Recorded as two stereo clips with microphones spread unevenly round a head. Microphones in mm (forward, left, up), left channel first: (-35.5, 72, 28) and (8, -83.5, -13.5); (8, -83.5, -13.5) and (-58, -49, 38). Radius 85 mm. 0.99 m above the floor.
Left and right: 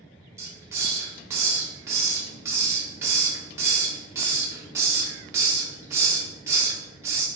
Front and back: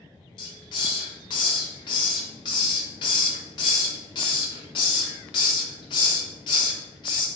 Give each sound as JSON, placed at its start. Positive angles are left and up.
{"t": 0.4, "sound": "a hiss", "azimuth_deg": 10, "distance_m": 0.5}